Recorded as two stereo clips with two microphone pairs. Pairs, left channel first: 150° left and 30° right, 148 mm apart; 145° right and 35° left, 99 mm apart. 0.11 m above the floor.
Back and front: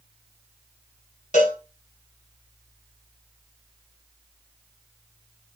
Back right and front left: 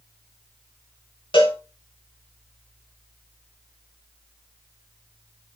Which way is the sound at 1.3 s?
175° right.